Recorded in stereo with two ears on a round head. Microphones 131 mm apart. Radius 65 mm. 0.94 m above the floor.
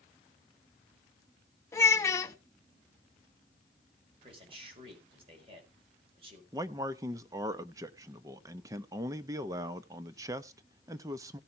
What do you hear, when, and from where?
1.7 s a child speaking: 20° left (ahead or behind), 1.1 m
4.2 s a man speaking: 40° right (ahead or behind), 4.5 m
6.5 s a man speaking: 20° right (ahead or behind), 0.7 m